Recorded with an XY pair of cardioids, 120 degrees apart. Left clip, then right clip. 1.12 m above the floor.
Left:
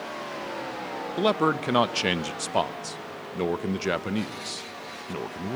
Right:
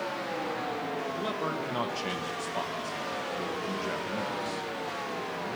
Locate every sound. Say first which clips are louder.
1.2 s a man speaking: left 8 dB; 65° left, 0.6 m